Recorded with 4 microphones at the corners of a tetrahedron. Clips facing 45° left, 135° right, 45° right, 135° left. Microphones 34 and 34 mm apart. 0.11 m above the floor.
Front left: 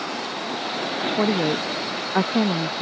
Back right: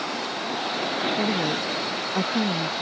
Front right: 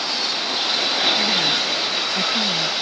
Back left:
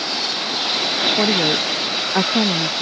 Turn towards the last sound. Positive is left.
turn(degrees=100)